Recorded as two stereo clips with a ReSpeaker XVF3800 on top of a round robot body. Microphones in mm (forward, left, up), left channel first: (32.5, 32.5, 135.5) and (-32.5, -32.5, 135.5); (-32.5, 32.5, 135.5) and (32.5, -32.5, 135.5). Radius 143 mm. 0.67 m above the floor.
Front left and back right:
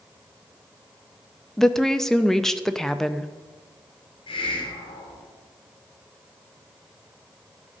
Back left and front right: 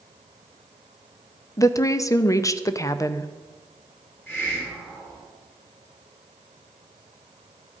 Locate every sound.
1.6 s a woman speaking: 125° left, 0.7 m
4.3 s a hiss: 70° left, 3 m